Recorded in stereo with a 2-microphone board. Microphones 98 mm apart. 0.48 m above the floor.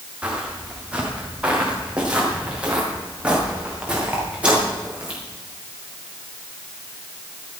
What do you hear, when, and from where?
0.2 s footsteps: 15° right (ahead or behind), 5.5 m; by 5.2 s 10° right (ahead or behind), 9 m